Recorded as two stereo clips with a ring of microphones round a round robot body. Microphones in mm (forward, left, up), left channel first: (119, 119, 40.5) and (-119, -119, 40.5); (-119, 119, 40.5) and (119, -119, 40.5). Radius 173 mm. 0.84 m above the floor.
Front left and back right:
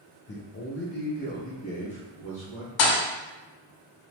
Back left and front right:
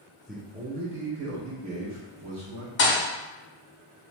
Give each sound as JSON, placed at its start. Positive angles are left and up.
{"t": 0.3, "sound": "a man speaking", "azimuth_deg": 45, "distance_m": 0.6}
{"t": 2.8, "sound": "a thud", "azimuth_deg": 80, "distance_m": 0.5}